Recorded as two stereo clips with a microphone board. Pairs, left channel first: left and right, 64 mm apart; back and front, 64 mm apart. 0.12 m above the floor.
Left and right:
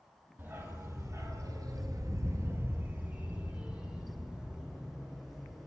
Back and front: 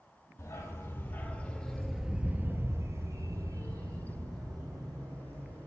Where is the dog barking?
140° right, 1.0 m; by 5.7 s 5° right, 2 m.